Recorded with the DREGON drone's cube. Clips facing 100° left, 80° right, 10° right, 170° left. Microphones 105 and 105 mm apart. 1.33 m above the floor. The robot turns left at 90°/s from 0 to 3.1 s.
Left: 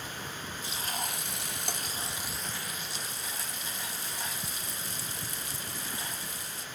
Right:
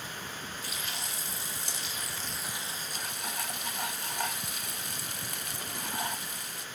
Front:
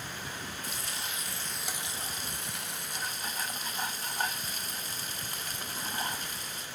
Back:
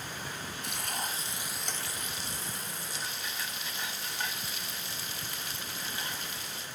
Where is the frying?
165° left, 0.9 m; by 6.7 s 55° right, 0.9 m.